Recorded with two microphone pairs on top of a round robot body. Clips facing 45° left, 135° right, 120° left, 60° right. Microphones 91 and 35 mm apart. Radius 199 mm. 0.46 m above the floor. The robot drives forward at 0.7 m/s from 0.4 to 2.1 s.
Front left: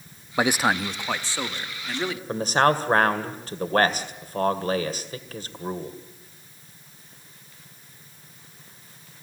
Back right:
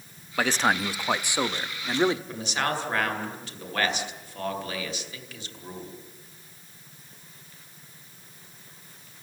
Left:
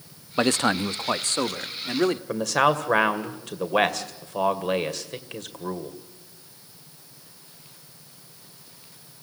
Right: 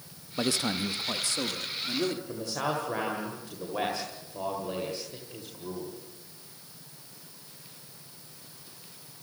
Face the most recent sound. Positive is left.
turn(degrees=95)